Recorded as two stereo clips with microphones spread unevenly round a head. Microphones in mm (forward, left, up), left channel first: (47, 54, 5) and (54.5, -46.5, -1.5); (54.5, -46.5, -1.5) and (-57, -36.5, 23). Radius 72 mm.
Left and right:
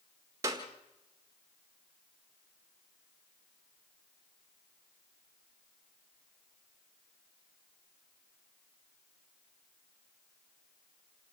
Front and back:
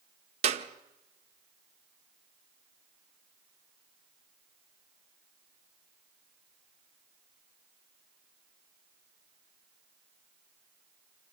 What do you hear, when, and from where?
0.4 s a clap: 155° right, 1.6 m